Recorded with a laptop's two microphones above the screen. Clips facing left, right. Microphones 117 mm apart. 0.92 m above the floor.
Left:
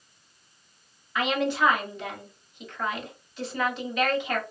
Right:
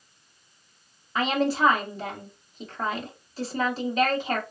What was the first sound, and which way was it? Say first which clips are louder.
A woman speaking: right 1 dB; 35° right (ahead or behind).